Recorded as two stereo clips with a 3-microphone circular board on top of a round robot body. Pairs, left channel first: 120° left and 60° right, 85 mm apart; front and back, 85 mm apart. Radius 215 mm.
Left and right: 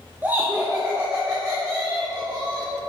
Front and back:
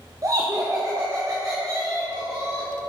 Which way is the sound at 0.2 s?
130° right.